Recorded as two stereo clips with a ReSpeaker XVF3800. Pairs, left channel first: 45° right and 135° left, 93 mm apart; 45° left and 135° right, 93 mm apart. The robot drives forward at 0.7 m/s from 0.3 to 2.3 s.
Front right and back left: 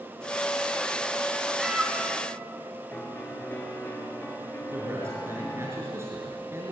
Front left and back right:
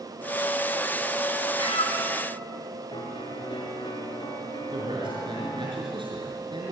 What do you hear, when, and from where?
1.6 s a cat meowing: 50° left, 2.5 m; by 2.1 s 60° left, 2.5 m
2.9 s a piano: 20° left, 5 m
4.7 s a man speaking: 165° right, 6 m